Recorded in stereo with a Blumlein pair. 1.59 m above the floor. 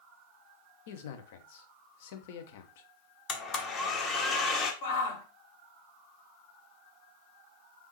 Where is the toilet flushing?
No toilet flushing in this recording.